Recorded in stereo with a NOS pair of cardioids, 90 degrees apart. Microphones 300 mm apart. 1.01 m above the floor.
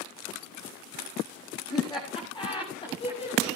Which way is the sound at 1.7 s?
15° left.